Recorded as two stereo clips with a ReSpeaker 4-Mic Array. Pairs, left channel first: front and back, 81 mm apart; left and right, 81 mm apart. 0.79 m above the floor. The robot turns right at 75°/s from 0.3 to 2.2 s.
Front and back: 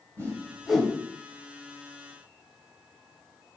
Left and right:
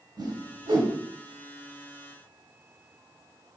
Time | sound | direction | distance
0.2 | a whoosh | 125° right | 1.5 m